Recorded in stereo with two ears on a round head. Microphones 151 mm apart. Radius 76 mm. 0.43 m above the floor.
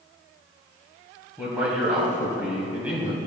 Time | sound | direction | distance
1.4 | a man speaking | 10° right (ahead or behind) | 3 m